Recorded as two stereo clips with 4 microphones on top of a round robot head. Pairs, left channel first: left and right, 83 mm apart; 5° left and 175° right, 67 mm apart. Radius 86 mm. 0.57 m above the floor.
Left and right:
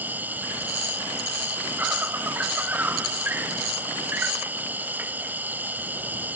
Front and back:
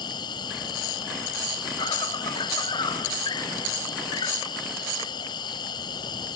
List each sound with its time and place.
0.0 s an insect: 20° right